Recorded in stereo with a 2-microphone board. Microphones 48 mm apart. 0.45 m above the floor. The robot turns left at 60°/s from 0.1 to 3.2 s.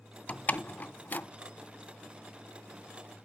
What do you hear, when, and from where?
0.3 s a door slam: 25° left (ahead or behind), 0.5 m; by 1.3 s 35° left (ahead or behind), 0.5 m